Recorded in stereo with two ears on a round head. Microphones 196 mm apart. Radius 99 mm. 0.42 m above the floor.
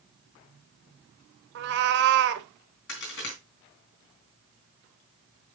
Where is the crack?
50° left (ahead or behind), 3.5 m.